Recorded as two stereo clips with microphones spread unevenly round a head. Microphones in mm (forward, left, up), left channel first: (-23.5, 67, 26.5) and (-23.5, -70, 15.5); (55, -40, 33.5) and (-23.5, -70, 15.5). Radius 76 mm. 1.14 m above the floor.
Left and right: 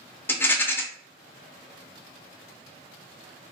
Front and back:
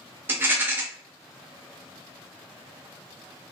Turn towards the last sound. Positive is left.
turn(degrees=160)